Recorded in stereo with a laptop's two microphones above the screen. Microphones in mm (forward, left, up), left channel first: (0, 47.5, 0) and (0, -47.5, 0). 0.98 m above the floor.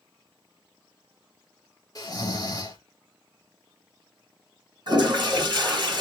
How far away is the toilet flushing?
About 1.9 m.